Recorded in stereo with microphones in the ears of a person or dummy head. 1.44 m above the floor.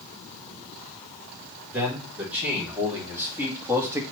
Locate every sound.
1.7 s a man speaking: 10° right (ahead or behind), 4 m; by 4.0 s 15° right (ahead or behind), 1.5 m